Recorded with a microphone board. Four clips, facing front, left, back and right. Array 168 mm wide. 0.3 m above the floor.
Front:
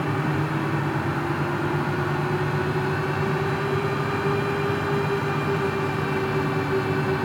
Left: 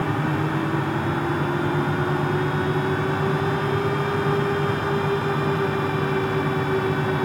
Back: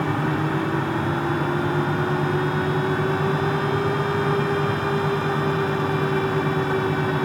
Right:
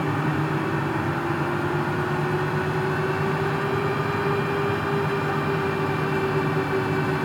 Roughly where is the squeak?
No squeak in this recording.